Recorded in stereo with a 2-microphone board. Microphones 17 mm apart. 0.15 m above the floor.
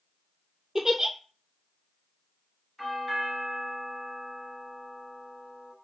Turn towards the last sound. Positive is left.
turn(degrees=25)  # may be behind; listen again after turning